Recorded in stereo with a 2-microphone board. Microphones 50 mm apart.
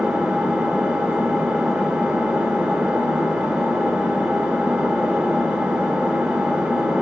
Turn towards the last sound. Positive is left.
turn(degrees=-20)  # may be behind; listen again after turning